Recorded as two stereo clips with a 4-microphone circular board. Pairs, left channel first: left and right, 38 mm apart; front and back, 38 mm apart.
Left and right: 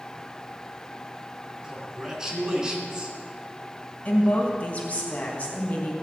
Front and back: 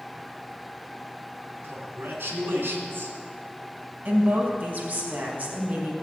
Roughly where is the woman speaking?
Behind left.